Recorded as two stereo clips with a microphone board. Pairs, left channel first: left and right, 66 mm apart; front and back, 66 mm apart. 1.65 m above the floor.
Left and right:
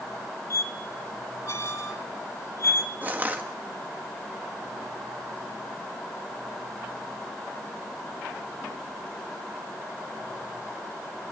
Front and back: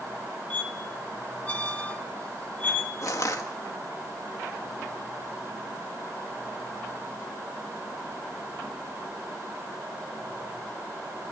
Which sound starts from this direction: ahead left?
A squeak, at 0.5 s.